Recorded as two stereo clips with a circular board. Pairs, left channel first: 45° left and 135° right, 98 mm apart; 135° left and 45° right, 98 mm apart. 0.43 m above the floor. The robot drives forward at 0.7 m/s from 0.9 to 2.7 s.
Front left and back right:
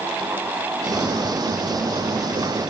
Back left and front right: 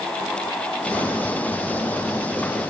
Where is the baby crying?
I don't hear a baby crying.